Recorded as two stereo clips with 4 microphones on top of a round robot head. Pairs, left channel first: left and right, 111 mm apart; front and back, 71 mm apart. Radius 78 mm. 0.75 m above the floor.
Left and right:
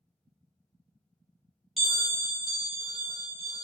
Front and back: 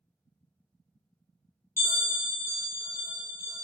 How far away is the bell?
About 1.0 m.